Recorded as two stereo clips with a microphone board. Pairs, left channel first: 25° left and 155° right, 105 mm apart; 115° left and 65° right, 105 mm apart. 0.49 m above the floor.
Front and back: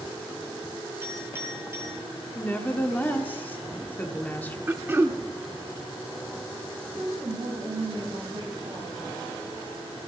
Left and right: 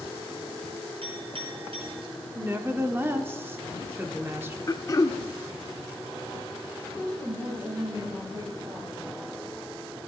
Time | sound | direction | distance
1.0 | a clink | 90° right | 4.5 m
2.4 | a woman speaking | 30° right | 1.0 m
4.7 | throat clearing | 145° left | 0.6 m
6.9 | a woman speaking | 120° right | 3.5 m